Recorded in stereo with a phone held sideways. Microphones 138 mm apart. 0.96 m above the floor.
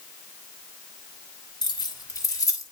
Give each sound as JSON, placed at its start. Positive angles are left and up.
{"t": 1.6, "sound": "keys jangling", "side_deg": 35, "distance_m": 1.3}